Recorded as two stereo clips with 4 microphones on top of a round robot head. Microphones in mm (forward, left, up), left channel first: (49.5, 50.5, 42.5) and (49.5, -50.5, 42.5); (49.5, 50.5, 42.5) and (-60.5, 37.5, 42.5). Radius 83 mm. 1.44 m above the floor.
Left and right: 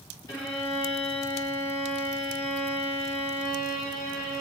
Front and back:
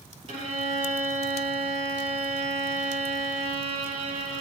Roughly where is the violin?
Behind left.